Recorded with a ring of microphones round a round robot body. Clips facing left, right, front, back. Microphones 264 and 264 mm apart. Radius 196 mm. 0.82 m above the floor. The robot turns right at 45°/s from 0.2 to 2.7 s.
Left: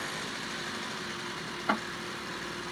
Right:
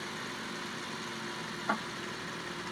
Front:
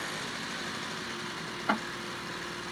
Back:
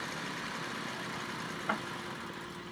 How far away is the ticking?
About 0.5 m.